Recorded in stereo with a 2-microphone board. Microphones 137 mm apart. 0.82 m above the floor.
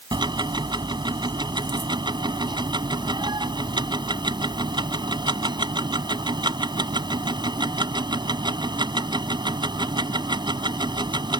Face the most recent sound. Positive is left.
turn(degrees=-30)  # may be behind; listen again after turning